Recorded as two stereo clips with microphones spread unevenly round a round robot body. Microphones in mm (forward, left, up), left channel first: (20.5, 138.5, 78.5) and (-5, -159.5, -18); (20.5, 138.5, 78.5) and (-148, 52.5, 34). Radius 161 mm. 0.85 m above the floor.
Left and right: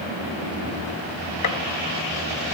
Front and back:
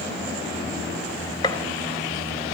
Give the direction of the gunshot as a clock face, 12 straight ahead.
9 o'clock.